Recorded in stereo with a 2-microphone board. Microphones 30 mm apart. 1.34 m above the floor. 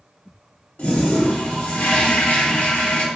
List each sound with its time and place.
0.8 s a toilet flushing: 70° left (ahead or behind), 1.3 m